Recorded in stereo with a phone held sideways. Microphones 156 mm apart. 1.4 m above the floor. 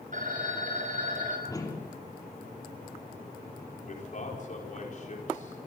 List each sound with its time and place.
0.1 s a phone ringing: 55° right (ahead or behind), 6 m
1.5 s a whoosh: 25° left (ahead or behind), 3 m
3.9 s a man speaking: 55° left (ahead or behind), 5 m